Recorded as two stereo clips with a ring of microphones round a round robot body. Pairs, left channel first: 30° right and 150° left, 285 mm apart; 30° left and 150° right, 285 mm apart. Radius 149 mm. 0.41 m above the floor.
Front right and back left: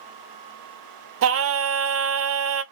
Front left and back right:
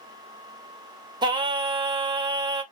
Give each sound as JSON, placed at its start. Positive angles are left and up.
{"t": 1.2, "sound": "singing", "azimuth_deg": 140, "distance_m": 0.6}